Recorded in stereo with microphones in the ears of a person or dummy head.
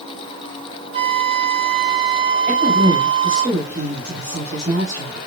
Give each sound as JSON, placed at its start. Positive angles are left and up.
{"t": 0.9, "sound": "a flute", "side_deg": -30, "distance_m": 1.1}
{"t": 2.5, "sound": "a woman speaking", "side_deg": -50, "distance_m": 4.5}